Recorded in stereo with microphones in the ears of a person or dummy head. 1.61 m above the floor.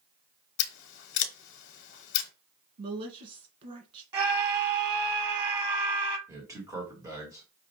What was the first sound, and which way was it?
Scissors, 70° left (ahead or behind).